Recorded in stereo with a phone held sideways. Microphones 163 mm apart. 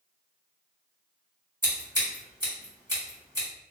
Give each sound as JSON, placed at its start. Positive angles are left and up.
{"t": 1.6, "sound": "scissors", "side_deg": -25, "distance_m": 1.7}